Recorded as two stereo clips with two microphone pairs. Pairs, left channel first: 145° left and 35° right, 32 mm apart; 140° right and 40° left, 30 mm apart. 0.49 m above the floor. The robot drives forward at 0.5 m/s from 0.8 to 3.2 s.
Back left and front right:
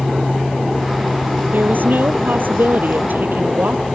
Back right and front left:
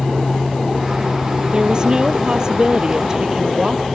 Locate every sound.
1.5 s a woman speaking: 20° right